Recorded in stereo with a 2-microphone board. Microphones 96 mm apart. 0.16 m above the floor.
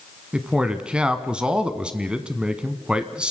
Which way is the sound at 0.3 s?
10° right (ahead or behind).